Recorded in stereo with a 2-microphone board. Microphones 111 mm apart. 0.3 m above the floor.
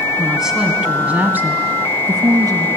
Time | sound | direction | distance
0.2 | a woman speaking | centre (ahead or behind) | 2.5 m